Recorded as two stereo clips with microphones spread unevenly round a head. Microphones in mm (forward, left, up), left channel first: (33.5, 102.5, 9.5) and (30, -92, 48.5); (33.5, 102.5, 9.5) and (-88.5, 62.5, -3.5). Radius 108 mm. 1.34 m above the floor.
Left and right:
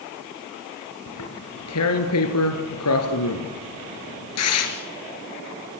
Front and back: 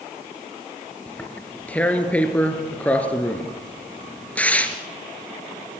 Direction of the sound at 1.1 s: 95° left.